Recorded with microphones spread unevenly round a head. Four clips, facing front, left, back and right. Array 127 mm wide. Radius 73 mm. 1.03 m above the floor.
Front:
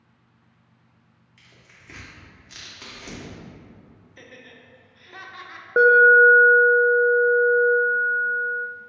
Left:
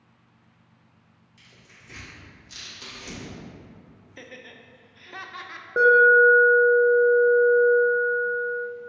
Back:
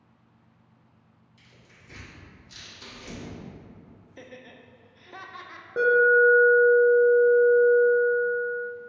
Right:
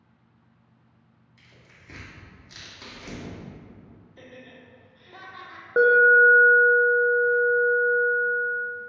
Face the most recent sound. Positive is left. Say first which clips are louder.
# left 1 dB, front 5 dB
turn(degrees=-25)